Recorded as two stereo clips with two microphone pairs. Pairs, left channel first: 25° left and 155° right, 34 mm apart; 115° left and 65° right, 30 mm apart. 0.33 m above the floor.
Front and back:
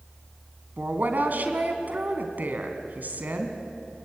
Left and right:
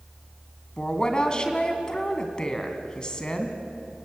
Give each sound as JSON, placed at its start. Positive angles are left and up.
{"t": 0.8, "sound": "a woman speaking", "azimuth_deg": 175, "distance_m": 2.5}